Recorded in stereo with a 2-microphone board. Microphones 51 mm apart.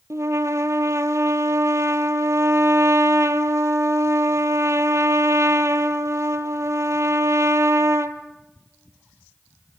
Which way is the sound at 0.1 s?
70° right (ahead or behind).